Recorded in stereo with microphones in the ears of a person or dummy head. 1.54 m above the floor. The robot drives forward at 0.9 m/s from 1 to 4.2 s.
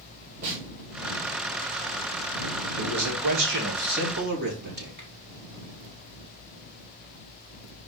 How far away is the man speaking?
About 2.5 m.